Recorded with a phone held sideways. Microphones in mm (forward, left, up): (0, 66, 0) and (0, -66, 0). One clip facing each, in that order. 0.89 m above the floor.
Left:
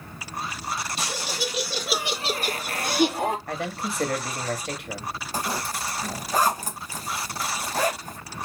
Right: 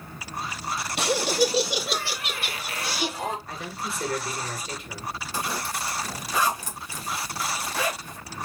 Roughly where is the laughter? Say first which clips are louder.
Right 8 dB; right.